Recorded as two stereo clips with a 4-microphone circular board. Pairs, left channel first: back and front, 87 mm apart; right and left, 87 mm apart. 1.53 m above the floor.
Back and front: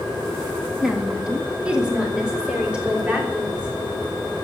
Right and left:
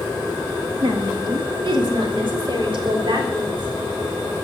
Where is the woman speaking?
85° left, 1.9 m; by 3.7 s 75° left, 3.5 m.